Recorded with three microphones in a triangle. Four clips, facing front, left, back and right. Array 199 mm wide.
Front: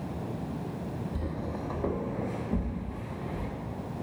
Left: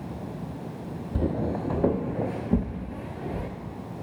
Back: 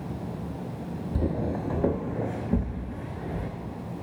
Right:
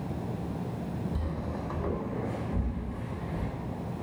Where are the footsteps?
120° left, 0.7 m; by 3.5 s 110° left, 2 m.